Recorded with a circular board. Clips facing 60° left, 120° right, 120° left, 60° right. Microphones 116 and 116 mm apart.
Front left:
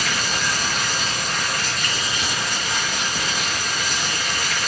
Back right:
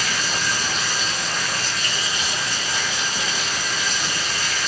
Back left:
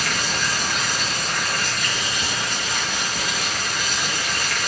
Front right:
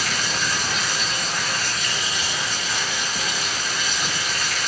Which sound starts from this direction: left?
Running water, at 0.0 s.